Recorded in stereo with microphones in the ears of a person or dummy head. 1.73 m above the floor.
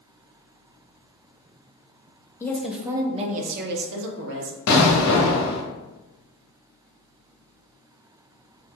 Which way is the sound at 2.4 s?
20° left (ahead or behind).